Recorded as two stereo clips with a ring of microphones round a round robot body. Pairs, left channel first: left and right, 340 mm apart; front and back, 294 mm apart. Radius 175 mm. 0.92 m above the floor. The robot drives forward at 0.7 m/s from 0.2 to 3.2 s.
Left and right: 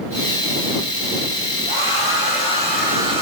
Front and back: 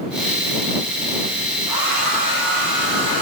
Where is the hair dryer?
160° left, 4.5 m; by 3.2 s 165° left, 5.5 m.